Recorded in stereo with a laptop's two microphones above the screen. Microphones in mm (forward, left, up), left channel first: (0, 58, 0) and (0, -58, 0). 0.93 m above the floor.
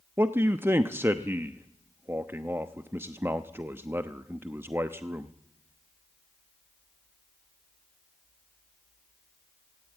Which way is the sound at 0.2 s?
20° right (ahead or behind).